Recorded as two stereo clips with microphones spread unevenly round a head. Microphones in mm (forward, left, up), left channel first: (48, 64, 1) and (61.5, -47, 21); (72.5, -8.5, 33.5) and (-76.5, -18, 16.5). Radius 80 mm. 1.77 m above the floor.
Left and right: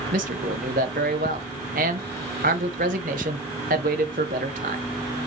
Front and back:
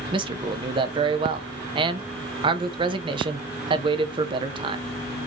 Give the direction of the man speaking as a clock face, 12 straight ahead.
4 o'clock.